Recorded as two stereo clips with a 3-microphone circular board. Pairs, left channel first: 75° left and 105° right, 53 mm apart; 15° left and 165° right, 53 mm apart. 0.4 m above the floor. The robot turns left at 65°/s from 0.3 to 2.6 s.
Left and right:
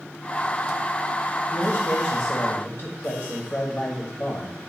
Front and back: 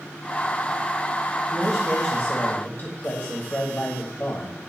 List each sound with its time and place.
1.5 s a man speaking: 115° left, 1.6 m; by 4.7 s 45° left, 1.6 m